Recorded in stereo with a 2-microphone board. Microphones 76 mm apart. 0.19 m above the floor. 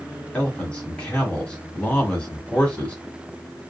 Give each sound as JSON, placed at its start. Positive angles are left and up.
{"t": 0.3, "sound": "a man speaking", "side_deg": 15, "distance_m": 1.2}